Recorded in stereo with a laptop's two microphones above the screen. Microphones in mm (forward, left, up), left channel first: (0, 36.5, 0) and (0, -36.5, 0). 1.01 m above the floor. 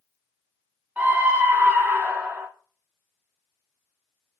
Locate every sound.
1.0 s a scream: 20° right (ahead or behind), 0.6 m